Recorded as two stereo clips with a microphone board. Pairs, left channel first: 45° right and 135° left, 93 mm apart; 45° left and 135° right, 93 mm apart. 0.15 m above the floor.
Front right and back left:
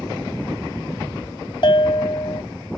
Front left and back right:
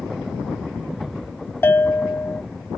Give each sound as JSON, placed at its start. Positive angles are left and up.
{"t": 1.6, "sound": "a bell", "azimuth_deg": -20}